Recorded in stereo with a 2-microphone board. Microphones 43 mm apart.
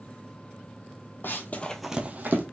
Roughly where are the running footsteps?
Left.